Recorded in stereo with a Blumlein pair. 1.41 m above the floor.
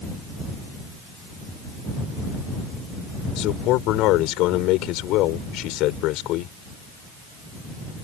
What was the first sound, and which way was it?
A man speaking, 40° left.